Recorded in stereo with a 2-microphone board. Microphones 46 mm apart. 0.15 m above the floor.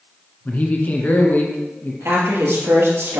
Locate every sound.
0.5 s a man speaking: 40° left (ahead or behind), 2.0 m
2.0 s a woman speaking: 65° right (ahead or behind), 2.5 m